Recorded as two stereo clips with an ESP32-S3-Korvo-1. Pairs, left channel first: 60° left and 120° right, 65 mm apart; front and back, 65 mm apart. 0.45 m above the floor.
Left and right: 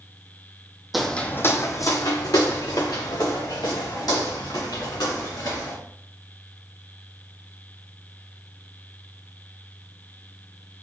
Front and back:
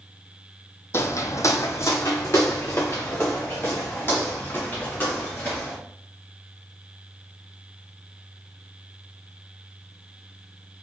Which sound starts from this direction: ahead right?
Footsteps, at 0.9 s.